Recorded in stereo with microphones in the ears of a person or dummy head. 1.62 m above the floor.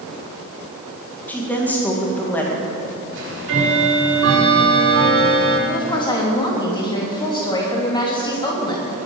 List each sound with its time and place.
1.3 s a woman speaking: 10° left (ahead or behind), 2.5 m
3.1 s ticking: 75° right (ahead or behind), 4.5 m
5.7 s a woman speaking: 20° left (ahead or behind), 3 m